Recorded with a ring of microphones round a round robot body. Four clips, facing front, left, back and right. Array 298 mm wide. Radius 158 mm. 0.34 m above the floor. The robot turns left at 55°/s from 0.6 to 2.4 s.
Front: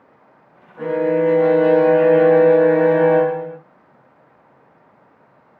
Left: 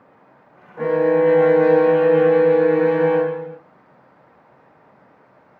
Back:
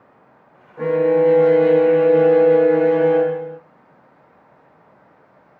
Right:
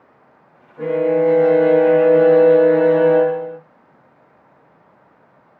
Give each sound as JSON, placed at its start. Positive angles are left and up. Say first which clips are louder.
{"t": 0.8, "sound": "a violin", "louder": "even, back 2 dB", "azimuth_deg": 100, "distance_m": 2.5}